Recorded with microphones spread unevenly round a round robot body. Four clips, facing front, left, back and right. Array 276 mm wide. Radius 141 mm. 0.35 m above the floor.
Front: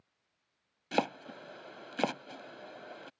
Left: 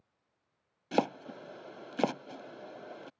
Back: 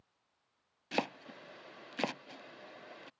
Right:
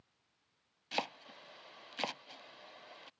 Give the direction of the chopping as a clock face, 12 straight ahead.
10 o'clock.